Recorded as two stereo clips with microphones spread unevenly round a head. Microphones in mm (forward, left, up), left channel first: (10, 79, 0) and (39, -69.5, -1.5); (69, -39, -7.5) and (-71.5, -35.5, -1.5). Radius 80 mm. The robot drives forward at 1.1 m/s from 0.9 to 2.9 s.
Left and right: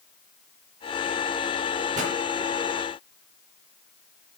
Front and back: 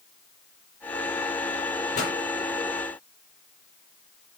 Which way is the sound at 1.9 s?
35° right.